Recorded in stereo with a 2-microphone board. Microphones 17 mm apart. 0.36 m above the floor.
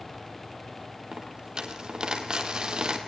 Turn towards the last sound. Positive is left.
turn(degrees=-65)  # may be behind; listen again after turning